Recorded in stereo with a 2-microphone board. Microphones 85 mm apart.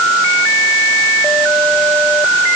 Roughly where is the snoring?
No snoring in this recording.